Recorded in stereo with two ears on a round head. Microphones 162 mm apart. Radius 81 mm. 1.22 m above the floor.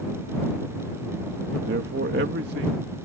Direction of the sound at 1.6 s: 60° right (ahead or behind).